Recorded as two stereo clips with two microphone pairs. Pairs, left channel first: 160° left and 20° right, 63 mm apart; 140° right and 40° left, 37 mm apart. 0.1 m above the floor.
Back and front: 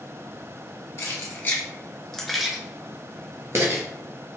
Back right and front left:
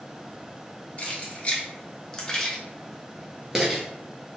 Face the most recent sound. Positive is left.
turn(degrees=-30)